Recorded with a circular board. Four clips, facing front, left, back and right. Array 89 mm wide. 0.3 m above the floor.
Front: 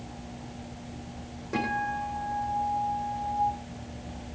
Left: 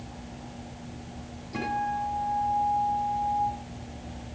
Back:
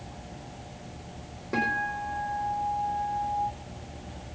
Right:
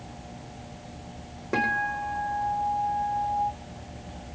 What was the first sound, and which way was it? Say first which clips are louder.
A guitar: right 2 dB, even; 100° right.